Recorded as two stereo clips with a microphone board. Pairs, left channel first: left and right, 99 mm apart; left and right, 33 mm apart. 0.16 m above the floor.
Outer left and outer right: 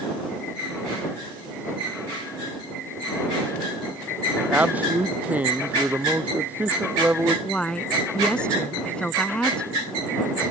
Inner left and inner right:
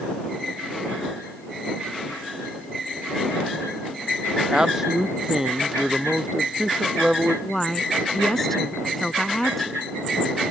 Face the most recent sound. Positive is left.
turn(degrees=10)  # may be behind; listen again after turning